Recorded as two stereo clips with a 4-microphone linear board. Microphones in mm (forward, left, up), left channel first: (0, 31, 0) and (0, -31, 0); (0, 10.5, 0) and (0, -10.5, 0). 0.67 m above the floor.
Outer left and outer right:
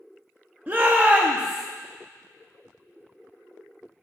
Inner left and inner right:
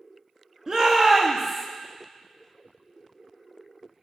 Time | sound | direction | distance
0.7 | a shout | 30° right (ahead or behind) | 0.7 m